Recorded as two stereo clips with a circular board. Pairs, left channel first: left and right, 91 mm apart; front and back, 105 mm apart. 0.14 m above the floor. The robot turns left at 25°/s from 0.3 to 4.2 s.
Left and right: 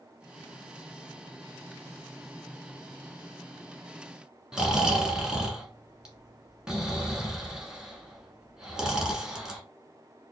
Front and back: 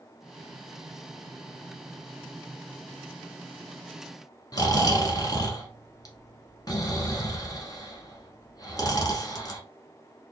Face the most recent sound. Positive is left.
turn(degrees=-15)